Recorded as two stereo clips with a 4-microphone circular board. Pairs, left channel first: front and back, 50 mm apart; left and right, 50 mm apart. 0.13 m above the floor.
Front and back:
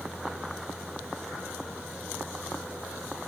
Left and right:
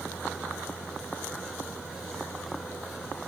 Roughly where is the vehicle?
Left.